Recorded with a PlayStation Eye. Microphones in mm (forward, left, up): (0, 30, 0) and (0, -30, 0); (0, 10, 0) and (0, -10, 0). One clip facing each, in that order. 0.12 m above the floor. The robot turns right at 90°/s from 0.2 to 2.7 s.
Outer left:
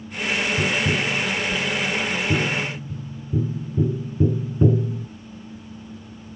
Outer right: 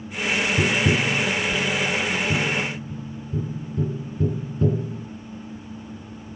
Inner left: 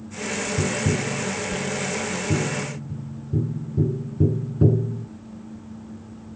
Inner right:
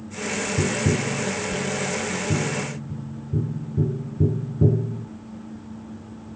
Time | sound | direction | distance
0.6 | tapping | 20° right (ahead or behind) | 0.8 m